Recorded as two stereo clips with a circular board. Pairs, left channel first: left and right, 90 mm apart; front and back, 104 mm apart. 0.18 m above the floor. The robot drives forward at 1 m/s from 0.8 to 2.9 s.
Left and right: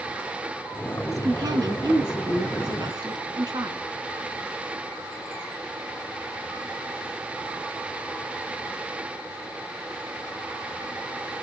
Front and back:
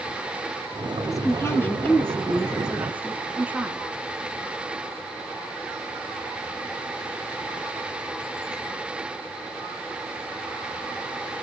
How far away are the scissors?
No scissors in this recording.